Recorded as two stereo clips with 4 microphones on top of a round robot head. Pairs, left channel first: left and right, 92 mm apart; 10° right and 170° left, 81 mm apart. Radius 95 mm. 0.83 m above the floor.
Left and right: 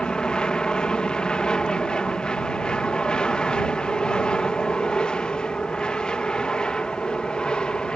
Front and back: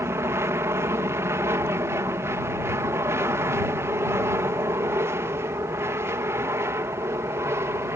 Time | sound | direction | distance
0.0 | an aircraft | 165° left | ?